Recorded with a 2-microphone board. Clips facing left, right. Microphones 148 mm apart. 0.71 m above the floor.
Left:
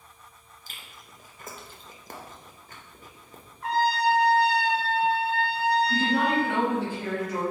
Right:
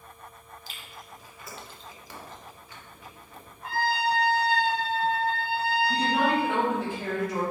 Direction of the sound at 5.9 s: Centre (ahead or behind).